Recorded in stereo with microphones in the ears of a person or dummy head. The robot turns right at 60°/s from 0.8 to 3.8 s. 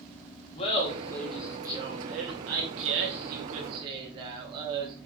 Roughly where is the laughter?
Behind left.